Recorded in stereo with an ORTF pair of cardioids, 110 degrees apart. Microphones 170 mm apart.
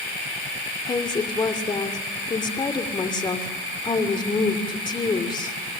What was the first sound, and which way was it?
A woman speaking, 25° left.